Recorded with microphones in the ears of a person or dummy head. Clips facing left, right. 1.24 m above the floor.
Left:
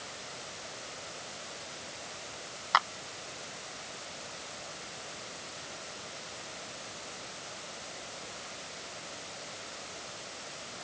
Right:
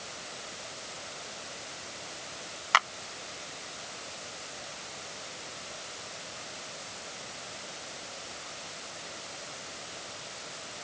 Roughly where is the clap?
Right.